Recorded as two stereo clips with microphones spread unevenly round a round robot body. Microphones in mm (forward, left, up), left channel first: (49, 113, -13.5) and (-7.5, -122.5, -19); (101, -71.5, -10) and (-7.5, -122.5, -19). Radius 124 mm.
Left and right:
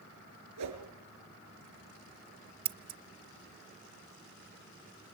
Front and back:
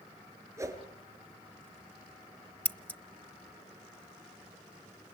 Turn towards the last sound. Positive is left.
turn(degrees=-55)